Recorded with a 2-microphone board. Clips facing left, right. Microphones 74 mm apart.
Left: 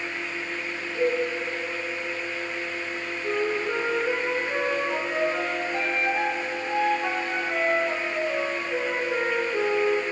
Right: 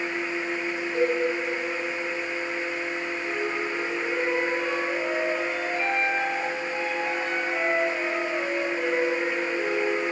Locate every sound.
0.9 s a cowbell: 40° right (ahead or behind), 8 m
3.2 s a flute: 75° left (ahead or behind), 4 m